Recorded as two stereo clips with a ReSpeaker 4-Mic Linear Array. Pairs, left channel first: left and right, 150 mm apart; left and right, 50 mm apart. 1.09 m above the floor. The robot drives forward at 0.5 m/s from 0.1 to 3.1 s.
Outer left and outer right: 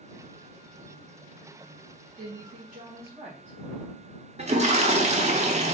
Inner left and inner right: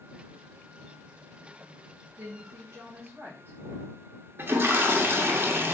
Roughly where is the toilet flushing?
Right.